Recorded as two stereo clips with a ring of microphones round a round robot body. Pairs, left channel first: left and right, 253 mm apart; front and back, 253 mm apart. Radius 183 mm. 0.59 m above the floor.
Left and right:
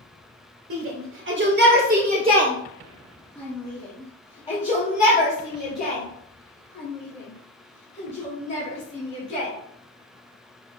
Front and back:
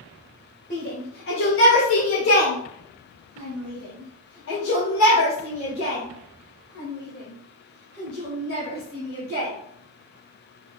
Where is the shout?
65° right, 1.4 m; by 9.5 s 50° left, 4.5 m.